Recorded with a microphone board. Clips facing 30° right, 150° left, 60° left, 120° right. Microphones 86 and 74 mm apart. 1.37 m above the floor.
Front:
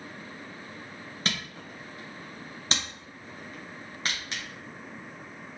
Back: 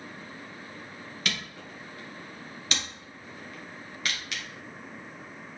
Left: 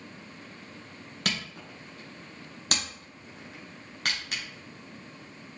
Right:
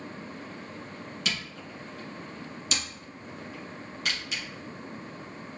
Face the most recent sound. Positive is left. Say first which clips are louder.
# front 1 dB, left 3 dB
turn(degrees=25)